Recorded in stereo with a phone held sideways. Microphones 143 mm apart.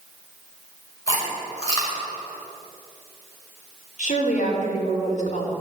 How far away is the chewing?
About 5.5 m.